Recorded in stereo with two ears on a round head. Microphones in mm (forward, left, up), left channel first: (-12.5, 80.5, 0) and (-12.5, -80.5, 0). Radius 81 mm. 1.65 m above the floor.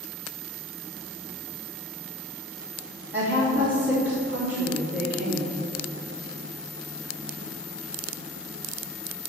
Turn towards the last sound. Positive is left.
turn(degrees=-10)  # may be behind; listen again after turning